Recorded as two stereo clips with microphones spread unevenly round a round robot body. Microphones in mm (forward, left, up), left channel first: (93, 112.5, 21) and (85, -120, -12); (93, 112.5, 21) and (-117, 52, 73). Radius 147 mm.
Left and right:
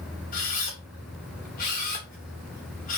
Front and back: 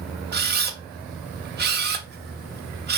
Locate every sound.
0.3 s a camera shutter: 150° left, 0.9 m